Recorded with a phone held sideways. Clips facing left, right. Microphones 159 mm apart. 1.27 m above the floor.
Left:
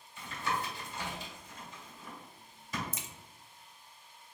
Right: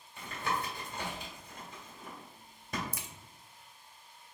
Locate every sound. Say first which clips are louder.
0.2 s tapping: even; 55° right (ahead or behind), 1.5 m
2.9 s a crack: even; 20° left (ahead or behind), 0.5 m